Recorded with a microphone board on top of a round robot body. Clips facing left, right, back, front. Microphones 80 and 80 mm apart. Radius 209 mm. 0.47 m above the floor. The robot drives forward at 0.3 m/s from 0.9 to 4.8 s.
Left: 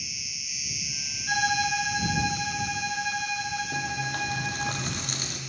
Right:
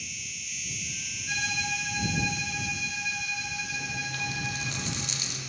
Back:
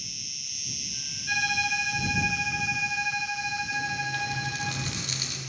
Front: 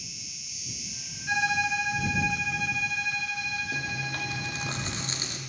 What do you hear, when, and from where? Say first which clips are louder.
0.0 s an insect: right 1 dB, back 1 dB; 170° left, 0.7 m; by 5.5 s 175° left, 1.8 m
1.3 s a violin: left 8 dB, front 2 dB; 65° left, 1.1 m; by 4.7 s 140° left, 1.3 m
3.7 s chewing: left 5 dB, back 3 dB; 45° left, 1.7 m; by 5.4 s 55° left, 1.5 m